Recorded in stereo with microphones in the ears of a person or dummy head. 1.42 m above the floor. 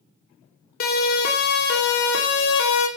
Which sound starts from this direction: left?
A siren, at 0.8 s.